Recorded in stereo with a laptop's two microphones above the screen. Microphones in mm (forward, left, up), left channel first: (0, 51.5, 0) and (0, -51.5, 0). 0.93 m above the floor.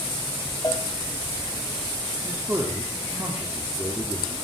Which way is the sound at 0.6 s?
35° left (ahead or behind).